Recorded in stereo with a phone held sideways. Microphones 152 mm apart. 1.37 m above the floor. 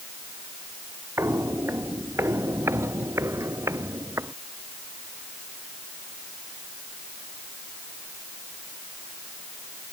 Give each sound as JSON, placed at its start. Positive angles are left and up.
{"t": 1.2, "sound": "footsteps", "side_deg": -15}